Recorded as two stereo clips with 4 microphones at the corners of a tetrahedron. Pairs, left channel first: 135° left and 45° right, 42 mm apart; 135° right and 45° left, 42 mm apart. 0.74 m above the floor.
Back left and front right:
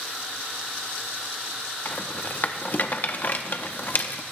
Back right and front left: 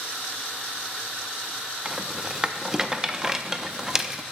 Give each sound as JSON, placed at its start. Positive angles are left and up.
{"t": 1.9, "sound": "a rattle", "azimuth_deg": 115, "distance_m": 0.7}